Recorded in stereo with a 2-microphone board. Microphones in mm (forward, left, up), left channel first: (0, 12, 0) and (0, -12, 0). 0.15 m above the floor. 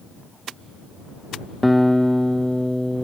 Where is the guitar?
10° left (ahead or behind).